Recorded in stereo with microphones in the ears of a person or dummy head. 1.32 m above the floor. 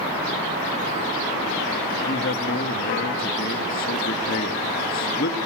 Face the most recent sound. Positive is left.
turn(degrees=55)  # may be behind; listen again after turning